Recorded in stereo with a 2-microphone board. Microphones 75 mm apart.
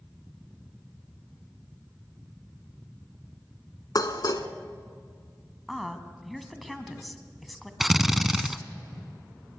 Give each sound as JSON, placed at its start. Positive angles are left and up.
{"t": 4.0, "sound": "dishes clattering", "side_deg": 60, "distance_m": 1.3}
{"t": 5.7, "sound": "a woman speaking", "side_deg": 0, "distance_m": 1.7}
{"t": 7.8, "sound": "a drill", "side_deg": -5, "distance_m": 0.7}